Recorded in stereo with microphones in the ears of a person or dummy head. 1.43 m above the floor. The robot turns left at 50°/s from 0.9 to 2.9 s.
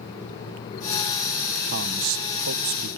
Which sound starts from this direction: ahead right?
A man speaking, at 1.7 s.